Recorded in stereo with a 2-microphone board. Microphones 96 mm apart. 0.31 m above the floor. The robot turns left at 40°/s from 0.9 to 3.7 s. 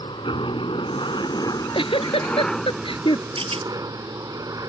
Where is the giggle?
55° left (ahead or behind); by 3.3 s 50° left (ahead or behind).